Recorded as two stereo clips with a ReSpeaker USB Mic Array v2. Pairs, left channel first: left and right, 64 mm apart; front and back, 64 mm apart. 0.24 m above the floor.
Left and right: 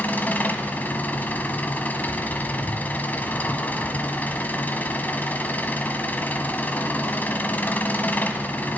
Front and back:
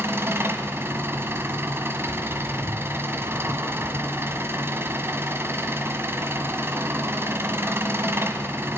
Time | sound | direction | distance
0.0 | an engine running | 145° left | 1.3 m